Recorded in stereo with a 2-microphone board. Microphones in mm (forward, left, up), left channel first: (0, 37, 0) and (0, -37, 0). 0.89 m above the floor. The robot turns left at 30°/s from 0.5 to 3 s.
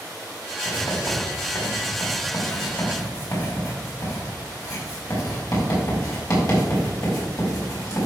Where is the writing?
55° left (ahead or behind), 4.5 m; by 8.1 s 50° left (ahead or behind), 4.5 m.